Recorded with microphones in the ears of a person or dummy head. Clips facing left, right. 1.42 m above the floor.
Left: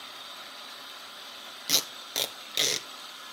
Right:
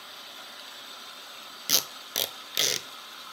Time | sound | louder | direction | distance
1.7 | tape being pulled | even | centre (ahead or behind) | 0.6 m